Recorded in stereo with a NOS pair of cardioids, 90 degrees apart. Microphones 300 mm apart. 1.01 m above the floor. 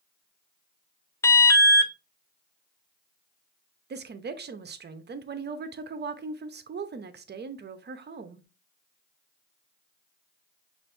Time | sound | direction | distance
1.2 | an alarm | 10° left | 0.6 m
3.9 | a woman speaking | 35° right | 0.8 m